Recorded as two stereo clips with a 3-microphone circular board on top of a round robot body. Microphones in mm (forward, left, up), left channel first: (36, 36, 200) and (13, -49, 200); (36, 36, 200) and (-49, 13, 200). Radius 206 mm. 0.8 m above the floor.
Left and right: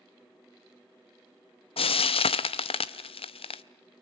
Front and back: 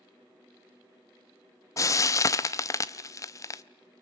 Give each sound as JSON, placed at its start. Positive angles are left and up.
{"t": 1.8, "sound": "frying", "azimuth_deg": 70, "distance_m": 0.5}